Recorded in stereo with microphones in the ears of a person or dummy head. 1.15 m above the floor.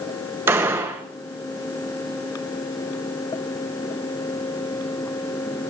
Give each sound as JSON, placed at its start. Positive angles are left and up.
{"t": 0.5, "sound": "a gunshot", "side_deg": -10, "distance_m": 1.1}